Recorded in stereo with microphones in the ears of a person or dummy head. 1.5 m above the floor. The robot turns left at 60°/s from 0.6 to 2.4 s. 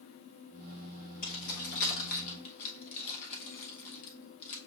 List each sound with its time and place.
1.2 s keys jangling: 35° left (ahead or behind), 1.0 m; by 4.6 s 40° left (ahead or behind), 1.0 m